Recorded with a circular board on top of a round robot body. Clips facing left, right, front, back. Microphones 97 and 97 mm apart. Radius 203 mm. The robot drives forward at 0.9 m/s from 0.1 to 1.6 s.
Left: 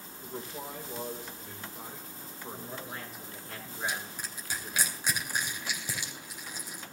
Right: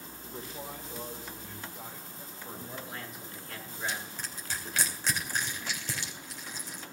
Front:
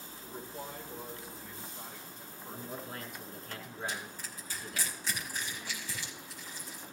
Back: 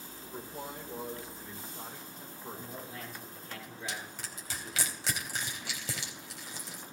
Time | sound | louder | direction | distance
0.2 | a man speaking | left 2 dB, back 1 dB | 100° left | 3 m
2.5 | a man speaking | left 1 dB, front 2 dB | 35° left | 7 m
3.9 | crushing | left 1 dB, even | 170° left | 2.5 m